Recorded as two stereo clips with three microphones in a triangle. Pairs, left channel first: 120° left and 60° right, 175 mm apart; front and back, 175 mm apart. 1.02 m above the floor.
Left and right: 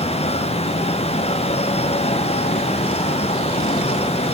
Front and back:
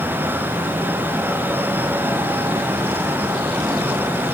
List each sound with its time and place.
Only background noise.